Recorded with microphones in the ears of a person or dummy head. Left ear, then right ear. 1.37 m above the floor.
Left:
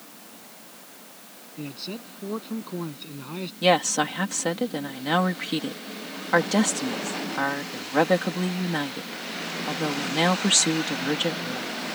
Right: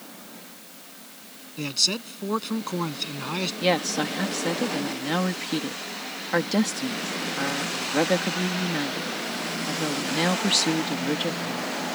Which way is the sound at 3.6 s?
35° left (ahead or behind).